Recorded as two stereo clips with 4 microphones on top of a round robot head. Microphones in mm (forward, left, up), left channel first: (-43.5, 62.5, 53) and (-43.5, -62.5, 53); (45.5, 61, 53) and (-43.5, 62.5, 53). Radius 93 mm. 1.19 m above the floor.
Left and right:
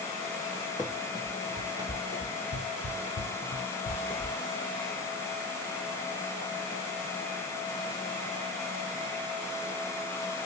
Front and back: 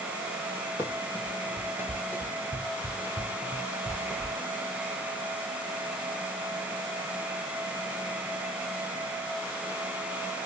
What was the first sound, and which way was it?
Running footsteps, 25° left.